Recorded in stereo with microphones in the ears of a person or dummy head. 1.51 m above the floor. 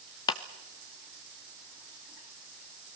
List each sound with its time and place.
0.3 s a clap: 20° left (ahead or behind), 0.8 m